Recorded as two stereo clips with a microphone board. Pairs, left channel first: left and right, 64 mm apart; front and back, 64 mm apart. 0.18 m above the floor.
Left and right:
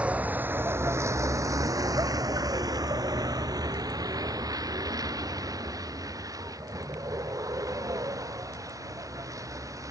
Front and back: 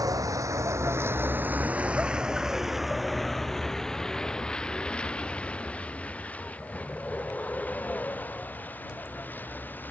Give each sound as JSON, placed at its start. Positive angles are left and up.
{"t": 0.0, "sound": "a vehicle", "azimuth_deg": -160}